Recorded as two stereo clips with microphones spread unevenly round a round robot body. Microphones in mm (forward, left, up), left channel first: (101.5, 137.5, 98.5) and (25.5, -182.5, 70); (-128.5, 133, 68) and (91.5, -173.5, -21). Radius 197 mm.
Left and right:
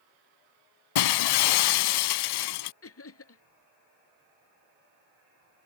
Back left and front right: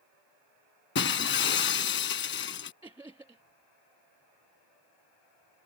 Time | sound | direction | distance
0.9 | breaking glass | 60° left | ?
2.8 | laughter | 30° left | ?